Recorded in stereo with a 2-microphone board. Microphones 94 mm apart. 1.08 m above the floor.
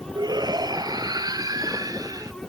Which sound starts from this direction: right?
A shout, at 0.1 s.